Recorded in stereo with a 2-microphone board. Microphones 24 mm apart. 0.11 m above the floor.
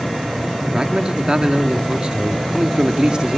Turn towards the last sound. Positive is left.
turn(degrees=-40)  # may be behind; listen again after turning